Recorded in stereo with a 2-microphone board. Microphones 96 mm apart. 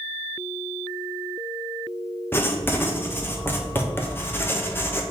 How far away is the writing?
About 0.6 m.